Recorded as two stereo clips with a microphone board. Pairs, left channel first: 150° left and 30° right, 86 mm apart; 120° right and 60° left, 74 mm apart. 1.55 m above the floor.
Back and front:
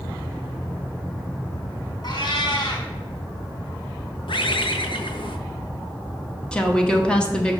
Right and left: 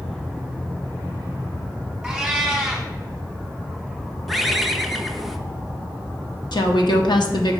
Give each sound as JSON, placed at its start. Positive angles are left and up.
{"t": 2.0, "sound": "a cat meowing", "azimuth_deg": 145, "distance_m": 2.0}
{"t": 4.3, "sound": "a bird", "azimuth_deg": 150, "distance_m": 0.6}
{"t": 6.5, "sound": "a woman speaking", "azimuth_deg": -130, "distance_m": 1.0}